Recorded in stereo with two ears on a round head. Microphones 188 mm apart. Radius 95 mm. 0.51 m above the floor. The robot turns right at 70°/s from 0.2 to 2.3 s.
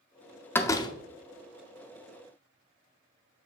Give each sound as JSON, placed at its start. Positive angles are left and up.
{"t": 0.6, "sound": "a door slam", "side_deg": 10, "distance_m": 0.5}